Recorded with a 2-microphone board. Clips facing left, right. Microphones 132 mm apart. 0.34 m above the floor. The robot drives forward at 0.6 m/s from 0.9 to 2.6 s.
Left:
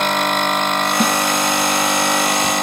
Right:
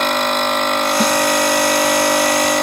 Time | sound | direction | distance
1.0 | a snare drum | 5° left (ahead or behind) | ?